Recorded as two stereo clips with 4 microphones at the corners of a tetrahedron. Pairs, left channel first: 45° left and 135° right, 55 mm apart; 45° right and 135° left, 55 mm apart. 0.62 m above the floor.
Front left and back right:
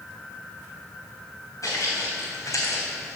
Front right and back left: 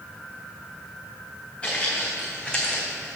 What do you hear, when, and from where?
1.6 s footsteps: 25° left, 2.5 m; by 3.2 s 35° left, 1.6 m